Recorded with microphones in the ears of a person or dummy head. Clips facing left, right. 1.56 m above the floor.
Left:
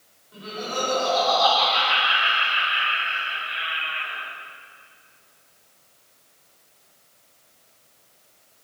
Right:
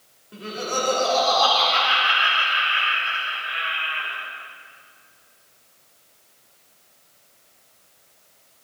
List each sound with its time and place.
0.3 s laughter: 45° right (ahead or behind), 4 m; by 4.2 s 65° right (ahead or behind), 5.5 m